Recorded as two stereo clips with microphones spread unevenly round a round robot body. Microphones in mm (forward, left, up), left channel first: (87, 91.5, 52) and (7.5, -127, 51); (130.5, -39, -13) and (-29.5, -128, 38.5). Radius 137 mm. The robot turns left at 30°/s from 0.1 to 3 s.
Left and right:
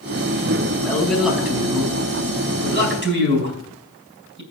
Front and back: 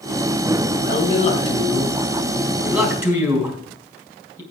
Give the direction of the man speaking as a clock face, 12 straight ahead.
12 o'clock.